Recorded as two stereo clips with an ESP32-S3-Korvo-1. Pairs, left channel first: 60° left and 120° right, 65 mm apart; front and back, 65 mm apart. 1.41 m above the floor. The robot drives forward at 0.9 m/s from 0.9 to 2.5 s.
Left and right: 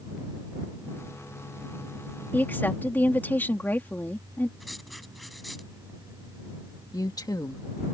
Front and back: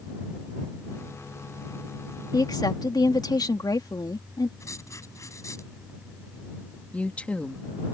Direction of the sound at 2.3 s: Straight ahead.